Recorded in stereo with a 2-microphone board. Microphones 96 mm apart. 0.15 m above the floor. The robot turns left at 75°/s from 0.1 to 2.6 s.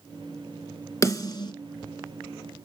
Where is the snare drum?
30° left (ahead or behind), 2.5 m; by 1.5 s 50° left (ahead or behind), 2.5 m.